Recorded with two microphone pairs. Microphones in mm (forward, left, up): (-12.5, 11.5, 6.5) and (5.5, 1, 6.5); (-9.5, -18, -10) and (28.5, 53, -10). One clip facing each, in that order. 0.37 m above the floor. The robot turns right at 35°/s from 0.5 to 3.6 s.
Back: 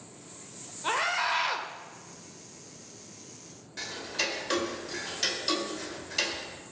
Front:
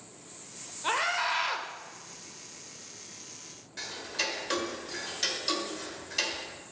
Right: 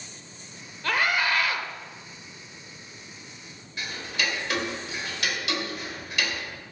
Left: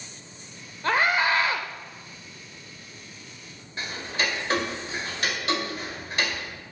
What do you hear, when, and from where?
0.8 s a scream: 45° left, 1.1 m; by 1.7 s 75° left, 1.1 m
3.8 s ticking: 60° left, 1.8 m